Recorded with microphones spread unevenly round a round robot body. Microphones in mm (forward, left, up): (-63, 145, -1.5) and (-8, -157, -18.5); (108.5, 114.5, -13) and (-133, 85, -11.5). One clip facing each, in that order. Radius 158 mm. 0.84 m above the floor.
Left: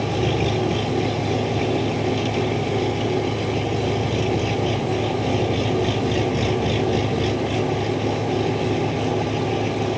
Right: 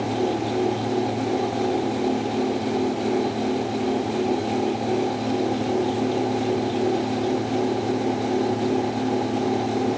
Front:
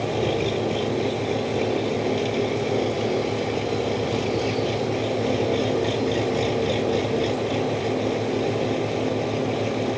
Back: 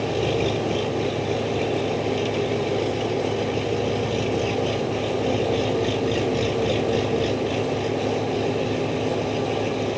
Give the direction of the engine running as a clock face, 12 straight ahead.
8 o'clock.